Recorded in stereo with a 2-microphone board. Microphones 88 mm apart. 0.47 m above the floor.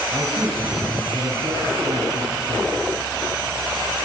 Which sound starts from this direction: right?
A man speaking, at 0.1 s.